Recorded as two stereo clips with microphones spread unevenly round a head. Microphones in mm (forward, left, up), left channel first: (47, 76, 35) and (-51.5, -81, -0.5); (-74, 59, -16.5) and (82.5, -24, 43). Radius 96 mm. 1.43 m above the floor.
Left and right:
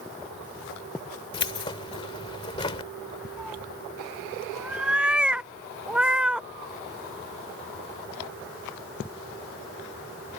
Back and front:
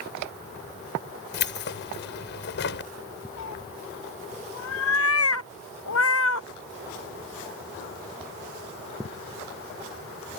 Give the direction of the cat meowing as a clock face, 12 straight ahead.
7 o'clock.